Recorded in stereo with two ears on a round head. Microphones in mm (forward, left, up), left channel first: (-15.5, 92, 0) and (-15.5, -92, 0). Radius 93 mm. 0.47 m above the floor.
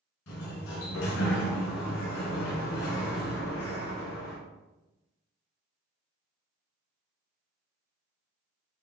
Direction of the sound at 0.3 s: 65° left (ahead or behind).